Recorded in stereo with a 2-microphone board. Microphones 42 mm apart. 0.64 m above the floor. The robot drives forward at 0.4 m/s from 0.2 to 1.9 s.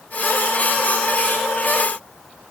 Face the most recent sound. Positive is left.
No sound to turn to.